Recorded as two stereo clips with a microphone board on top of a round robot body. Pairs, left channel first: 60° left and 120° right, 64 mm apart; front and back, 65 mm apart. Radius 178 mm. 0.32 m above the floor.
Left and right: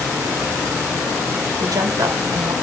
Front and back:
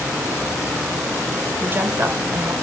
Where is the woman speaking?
130° right, 4 m.